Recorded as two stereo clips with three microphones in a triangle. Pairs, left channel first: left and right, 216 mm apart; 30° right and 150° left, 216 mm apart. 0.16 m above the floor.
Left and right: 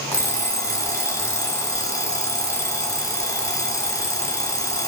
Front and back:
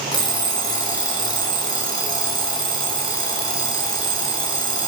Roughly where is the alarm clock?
Ahead.